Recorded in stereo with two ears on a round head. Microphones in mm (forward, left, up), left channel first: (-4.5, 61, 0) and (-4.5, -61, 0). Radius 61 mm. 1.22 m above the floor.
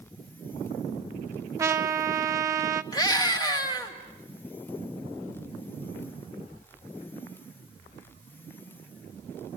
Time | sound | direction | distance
1.6 | a trumpet | 25° right (ahead or behind) | 0.8 m
2.9 | a scream | 30° left (ahead or behind) | 2.5 m